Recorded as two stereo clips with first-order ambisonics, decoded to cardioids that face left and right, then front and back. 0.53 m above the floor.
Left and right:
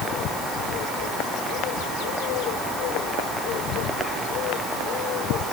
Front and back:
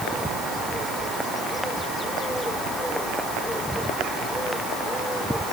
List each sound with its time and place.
Only background noise.